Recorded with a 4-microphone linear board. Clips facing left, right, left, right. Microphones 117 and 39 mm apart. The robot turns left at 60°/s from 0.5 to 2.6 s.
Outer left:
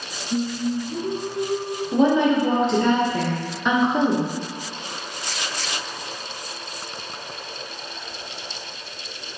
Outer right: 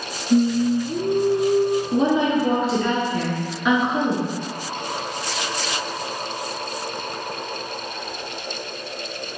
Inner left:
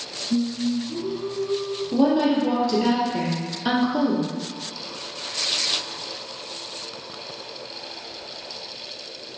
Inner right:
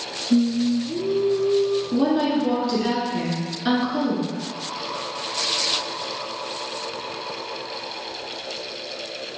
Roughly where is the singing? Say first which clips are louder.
Outer right 7 dB, inner right 4 dB; right.